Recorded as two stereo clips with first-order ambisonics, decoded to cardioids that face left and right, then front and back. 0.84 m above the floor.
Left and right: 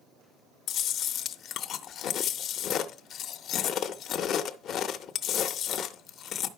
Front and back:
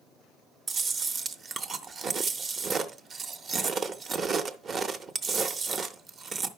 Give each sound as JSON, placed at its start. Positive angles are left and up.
{"t": 0.7, "sound": "chewing", "azimuth_deg": 125, "distance_m": 0.6}